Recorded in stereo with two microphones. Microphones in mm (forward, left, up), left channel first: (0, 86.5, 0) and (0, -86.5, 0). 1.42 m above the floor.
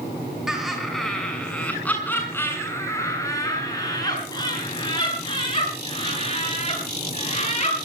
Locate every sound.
0.5 s laughter: 5° right (ahead or behind), 7.5 m; by 7.8 s 35° left (ahead or behind), 14 m